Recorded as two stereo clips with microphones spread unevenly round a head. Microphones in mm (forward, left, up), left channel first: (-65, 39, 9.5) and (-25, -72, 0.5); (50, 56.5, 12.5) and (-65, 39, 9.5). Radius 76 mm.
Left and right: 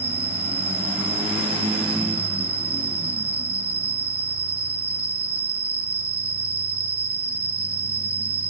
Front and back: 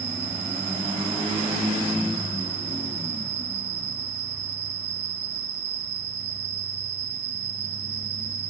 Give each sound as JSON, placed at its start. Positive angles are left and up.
{"t": 0.0, "sound": "an insect", "azimuth_deg": -115, "distance_m": 1.1}